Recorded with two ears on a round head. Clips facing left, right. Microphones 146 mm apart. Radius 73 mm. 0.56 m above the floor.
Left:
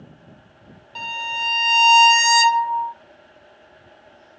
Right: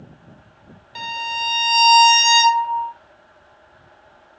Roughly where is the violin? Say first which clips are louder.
Right 2 dB; centre.